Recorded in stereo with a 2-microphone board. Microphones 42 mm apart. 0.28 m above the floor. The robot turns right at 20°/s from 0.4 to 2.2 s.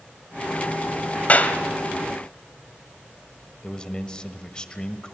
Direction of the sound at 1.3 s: 40° left (ahead or behind).